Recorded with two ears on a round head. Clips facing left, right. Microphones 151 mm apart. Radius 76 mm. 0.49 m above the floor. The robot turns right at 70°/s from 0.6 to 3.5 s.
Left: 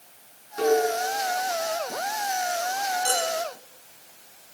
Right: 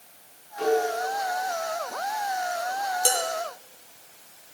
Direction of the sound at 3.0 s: 65° right (ahead or behind).